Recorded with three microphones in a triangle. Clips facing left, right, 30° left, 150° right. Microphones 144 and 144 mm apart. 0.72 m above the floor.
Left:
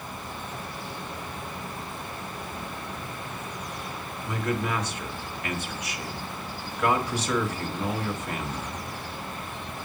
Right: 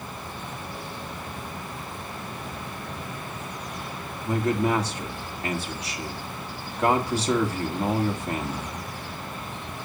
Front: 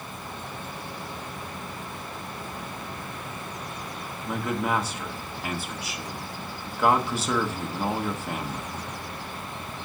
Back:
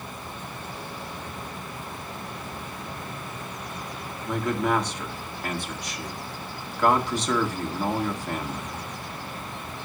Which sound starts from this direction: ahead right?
A man speaking, at 4.2 s.